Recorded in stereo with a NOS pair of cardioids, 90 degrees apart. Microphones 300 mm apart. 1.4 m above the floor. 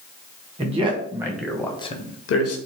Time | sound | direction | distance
0.6 | a man speaking | 20° right | 1.4 m